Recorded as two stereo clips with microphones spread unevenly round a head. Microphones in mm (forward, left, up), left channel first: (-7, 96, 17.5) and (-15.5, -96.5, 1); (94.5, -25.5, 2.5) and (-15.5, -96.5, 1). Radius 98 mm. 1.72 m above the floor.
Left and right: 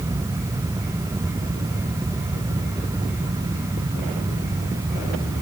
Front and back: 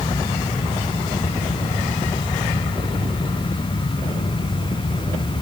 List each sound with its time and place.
Only background noise.